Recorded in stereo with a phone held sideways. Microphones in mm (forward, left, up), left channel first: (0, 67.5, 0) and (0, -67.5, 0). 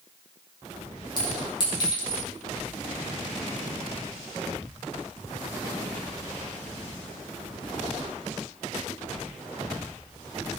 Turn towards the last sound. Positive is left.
turn(degrees=35)  # may be behind; listen again after turning